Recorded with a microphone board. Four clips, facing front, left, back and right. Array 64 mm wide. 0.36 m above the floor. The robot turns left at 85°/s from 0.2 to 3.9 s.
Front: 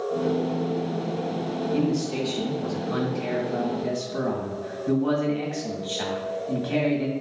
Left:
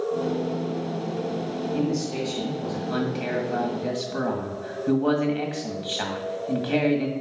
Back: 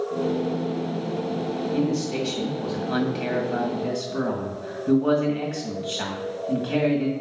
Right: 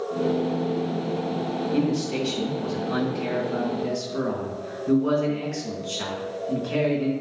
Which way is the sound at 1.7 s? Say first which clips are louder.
Right 2 dB, even; 80° right.